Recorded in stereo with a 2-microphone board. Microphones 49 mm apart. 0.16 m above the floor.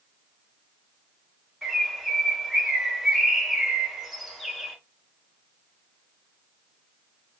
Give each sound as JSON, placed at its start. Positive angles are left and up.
{"t": 1.6, "sound": "a bird", "side_deg": -5, "distance_m": 0.9}